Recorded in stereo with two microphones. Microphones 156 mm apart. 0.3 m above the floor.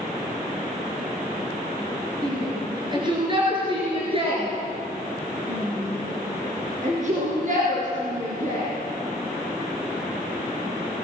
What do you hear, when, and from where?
2.2 s a shout: 25° right (ahead or behind), 5.5 m; by 8.7 s 60° right (ahead or behind), 5.5 m